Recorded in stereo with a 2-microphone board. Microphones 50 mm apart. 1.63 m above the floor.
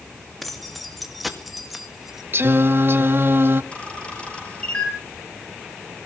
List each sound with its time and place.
0.4 s keys jangling: centre (ahead or behind), 2.5 m; by 2.2 s 10° right (ahead or behind), 1.5 m
2.3 s singing: 50° right (ahead or behind), 0.9 m
3.7 s a camera shutter: 25° left (ahead or behind), 6.5 m